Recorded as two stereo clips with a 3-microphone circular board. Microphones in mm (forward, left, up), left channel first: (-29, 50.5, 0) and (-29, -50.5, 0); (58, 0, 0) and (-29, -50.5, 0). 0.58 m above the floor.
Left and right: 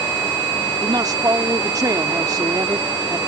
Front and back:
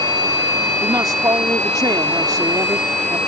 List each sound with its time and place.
0.8 s a woman speaking: 120° right